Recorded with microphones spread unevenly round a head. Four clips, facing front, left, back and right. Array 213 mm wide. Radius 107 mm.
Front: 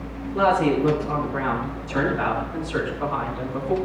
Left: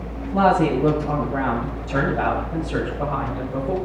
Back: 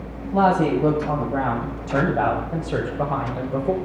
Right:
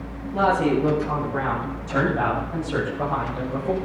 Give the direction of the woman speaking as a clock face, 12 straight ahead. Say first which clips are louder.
Left 2 dB, back 1 dB; 7 o'clock.